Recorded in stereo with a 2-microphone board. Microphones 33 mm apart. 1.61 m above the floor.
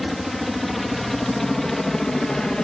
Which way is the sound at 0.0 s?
Centre (ahead or behind).